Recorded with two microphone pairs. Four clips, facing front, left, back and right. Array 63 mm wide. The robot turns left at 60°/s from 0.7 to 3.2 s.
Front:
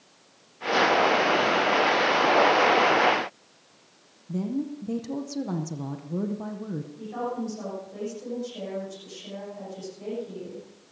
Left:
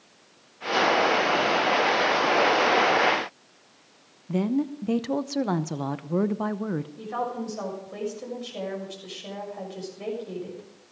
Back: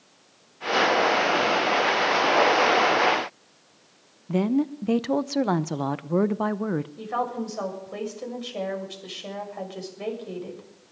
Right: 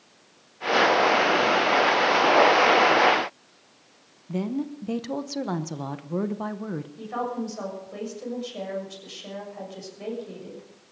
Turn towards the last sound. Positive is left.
turn(degrees=180)